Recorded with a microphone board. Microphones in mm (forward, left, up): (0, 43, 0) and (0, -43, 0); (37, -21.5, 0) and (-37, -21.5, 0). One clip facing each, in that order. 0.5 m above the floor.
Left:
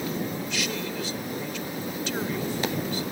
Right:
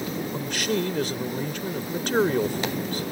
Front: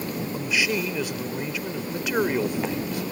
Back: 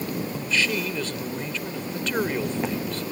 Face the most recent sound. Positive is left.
turn(degrees=-75)